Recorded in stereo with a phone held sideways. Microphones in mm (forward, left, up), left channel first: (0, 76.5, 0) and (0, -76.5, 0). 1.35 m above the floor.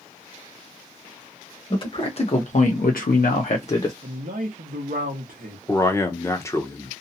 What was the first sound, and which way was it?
A man speaking, 35° left (ahead or behind).